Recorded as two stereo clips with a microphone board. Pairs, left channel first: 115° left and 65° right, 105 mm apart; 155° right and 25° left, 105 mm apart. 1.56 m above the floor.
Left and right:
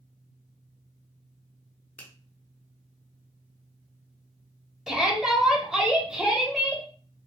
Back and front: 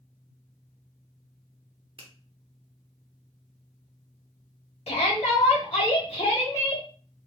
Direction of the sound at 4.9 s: 155° right.